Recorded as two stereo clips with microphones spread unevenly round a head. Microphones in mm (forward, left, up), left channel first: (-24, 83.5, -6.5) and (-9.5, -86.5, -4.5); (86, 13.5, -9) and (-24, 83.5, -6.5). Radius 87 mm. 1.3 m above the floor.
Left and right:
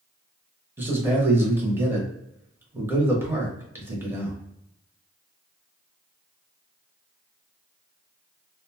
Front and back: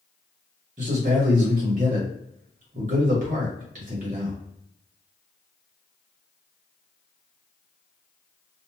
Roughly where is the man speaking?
Behind.